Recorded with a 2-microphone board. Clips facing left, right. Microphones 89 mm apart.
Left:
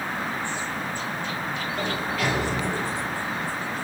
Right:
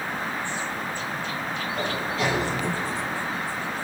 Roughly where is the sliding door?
Right.